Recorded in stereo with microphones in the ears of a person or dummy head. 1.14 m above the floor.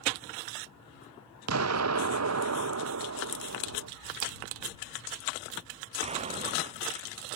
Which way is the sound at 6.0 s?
35° right (ahead or behind).